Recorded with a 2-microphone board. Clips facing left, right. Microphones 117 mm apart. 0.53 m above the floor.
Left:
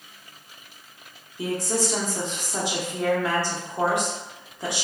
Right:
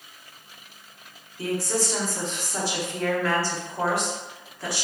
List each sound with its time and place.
1.4 s a woman speaking: 20° left (ahead or behind), 0.9 m